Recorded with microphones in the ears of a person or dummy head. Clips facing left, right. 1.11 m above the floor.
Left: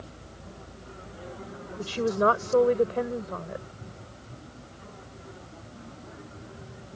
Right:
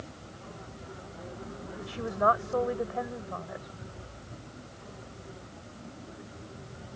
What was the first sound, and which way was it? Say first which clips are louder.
A woman speaking: left 5 dB; 50° left (ahead or behind).